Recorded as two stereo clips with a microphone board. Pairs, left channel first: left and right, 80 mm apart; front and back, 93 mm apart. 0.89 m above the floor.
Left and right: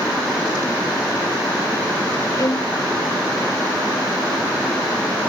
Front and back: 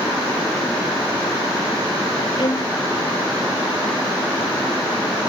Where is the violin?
40° left.